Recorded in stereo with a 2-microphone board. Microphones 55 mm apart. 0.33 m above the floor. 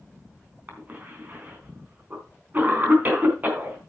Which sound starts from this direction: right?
A cough, at 0.7 s.